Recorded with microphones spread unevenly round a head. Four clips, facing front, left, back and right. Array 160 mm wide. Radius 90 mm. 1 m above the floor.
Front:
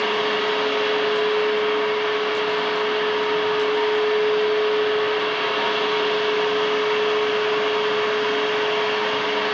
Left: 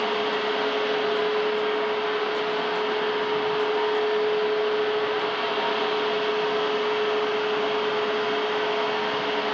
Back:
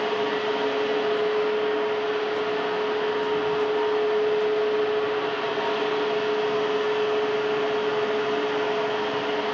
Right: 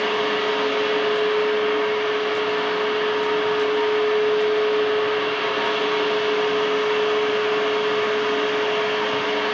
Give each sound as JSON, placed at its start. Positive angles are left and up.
{"t": 0.0, "sound": "a fan", "azimuth_deg": -5, "distance_m": 1.4}